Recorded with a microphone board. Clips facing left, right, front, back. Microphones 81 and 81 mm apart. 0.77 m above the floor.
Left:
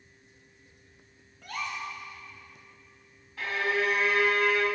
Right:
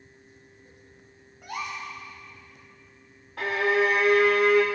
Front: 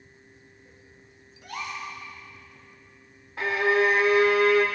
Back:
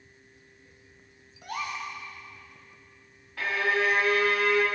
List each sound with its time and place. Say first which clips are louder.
1.4 s a gasp: right 1 dB, back 1 dB; 160° right, 1.6 m
3.4 s a violin: right 5 dB, front 4 dB; 65° right, 0.9 m